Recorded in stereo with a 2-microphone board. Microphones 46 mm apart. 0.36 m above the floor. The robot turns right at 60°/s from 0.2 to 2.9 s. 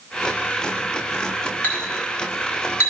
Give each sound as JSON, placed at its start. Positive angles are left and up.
{"t": 1.6, "sound": "a clink", "side_deg": 35, "distance_m": 2.0}